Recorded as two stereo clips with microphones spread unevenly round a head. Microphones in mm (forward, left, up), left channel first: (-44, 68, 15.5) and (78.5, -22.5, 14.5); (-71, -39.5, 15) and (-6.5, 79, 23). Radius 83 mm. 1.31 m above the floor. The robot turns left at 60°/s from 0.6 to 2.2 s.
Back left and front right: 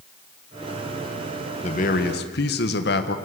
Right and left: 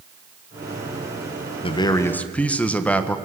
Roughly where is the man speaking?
Behind.